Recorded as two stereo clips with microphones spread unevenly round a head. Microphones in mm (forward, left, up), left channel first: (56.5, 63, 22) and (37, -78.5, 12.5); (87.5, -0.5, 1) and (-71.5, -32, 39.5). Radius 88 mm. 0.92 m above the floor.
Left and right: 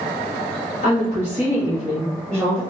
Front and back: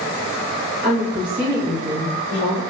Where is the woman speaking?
125° left, 1.4 m; by 2.6 s 170° left, 1.6 m.